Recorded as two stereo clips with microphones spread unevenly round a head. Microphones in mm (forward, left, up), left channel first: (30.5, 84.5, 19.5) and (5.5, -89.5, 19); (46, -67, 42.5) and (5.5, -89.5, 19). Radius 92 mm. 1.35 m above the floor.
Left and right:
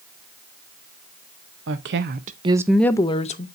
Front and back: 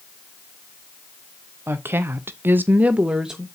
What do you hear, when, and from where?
1.7 s a woman speaking: 120° right, 0.8 m; by 3.5 s 135° left, 0.8 m